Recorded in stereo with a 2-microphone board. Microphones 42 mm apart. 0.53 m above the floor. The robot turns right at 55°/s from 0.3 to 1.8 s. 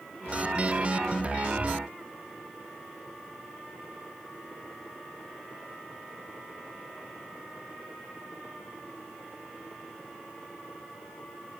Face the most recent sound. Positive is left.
No sound to turn to.